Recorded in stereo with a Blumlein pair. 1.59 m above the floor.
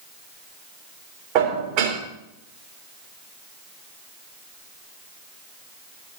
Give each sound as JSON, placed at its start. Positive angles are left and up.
{"t": 1.4, "sound": "dishes clattering", "azimuth_deg": -45, "distance_m": 2.5}